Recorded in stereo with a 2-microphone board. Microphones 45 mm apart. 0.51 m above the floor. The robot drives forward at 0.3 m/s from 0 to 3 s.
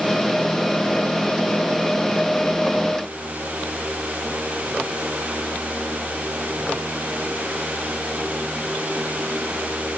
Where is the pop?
I don't hear a pop.